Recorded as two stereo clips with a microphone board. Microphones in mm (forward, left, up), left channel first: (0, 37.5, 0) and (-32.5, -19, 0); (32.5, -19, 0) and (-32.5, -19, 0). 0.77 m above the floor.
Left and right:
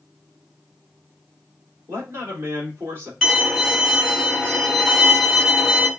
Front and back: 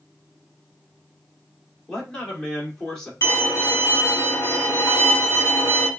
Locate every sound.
1.9 s a man speaking: 80° right, 2 m
3.2 s a violin: 40° right, 2.0 m